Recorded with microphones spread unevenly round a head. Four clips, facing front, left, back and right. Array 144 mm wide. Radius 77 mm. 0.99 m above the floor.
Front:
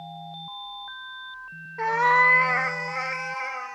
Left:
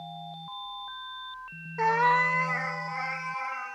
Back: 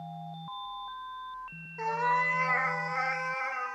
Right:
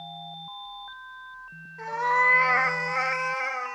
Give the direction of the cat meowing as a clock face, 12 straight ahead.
10 o'clock.